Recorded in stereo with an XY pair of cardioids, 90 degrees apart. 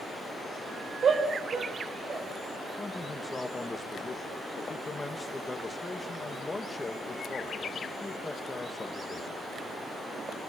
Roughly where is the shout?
Ahead right.